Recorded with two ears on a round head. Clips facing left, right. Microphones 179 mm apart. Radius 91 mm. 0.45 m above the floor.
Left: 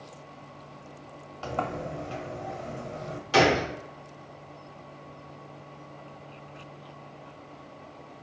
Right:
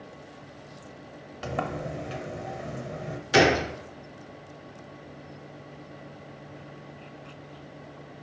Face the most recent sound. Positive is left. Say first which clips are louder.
# right 1 dB
turn(degrees=-15)  # may be behind; listen again after turning